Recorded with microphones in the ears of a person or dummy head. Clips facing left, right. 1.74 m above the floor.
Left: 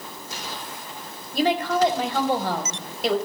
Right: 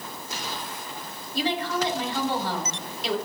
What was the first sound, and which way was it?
A woman speaking, 50° left (ahead or behind).